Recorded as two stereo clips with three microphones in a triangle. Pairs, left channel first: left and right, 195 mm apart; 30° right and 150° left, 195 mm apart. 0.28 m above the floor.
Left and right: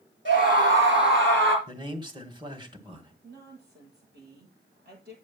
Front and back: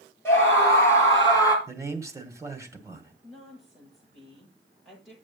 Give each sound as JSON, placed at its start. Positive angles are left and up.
{"t": 0.2, "sound": "a scream", "azimuth_deg": -110, "distance_m": 6.0}
{"t": 1.7, "sound": "a man speaking", "azimuth_deg": -145, "distance_m": 1.9}
{"t": 3.2, "sound": "a woman speaking", "azimuth_deg": -120, "distance_m": 9.0}